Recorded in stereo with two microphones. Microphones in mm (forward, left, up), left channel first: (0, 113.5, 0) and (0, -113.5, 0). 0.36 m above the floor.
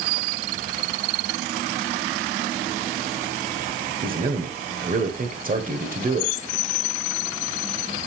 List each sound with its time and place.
4.0 s a man speaking: 40° right (ahead or behind), 1.1 m